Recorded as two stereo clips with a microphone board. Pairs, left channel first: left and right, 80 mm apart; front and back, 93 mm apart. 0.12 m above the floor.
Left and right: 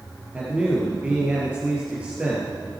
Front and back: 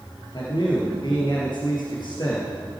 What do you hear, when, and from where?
0.3 s a man speaking: 20° right, 2.5 m